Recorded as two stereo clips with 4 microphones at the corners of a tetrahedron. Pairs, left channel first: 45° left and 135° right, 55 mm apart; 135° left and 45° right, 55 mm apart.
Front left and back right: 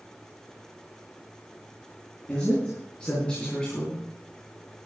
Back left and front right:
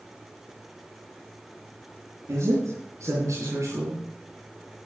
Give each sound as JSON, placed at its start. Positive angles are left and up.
{"t": 2.3, "sound": "a man speaking", "azimuth_deg": -25, "distance_m": 5.0}